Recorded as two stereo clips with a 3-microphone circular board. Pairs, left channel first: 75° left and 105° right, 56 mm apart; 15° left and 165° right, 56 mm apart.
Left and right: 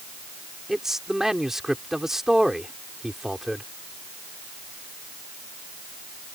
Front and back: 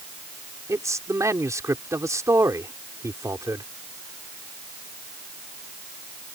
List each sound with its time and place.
0.7 s a man speaking: 175° left